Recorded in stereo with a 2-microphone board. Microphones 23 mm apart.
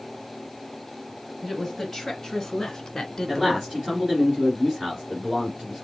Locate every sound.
1.4 s a woman speaking: 5° left (ahead or behind), 2.5 m; by 3.9 s 15° left (ahead or behind), 1.1 m
3.3 s a man speaking: 15° right (ahead or behind), 2 m